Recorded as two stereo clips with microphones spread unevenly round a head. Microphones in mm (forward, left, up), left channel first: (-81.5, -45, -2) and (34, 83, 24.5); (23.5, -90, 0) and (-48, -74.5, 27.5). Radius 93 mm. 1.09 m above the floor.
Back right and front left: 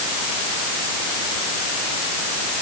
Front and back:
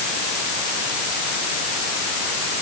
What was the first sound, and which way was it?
Only background noise.